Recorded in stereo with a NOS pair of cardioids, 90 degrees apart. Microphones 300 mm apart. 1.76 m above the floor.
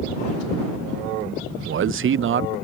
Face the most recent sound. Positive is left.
turn(degrees=-40)